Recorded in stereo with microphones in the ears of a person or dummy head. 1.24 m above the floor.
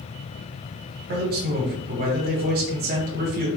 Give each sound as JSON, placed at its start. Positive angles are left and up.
{"t": 1.1, "sound": "a man speaking", "side_deg": -50, "distance_m": 1.2}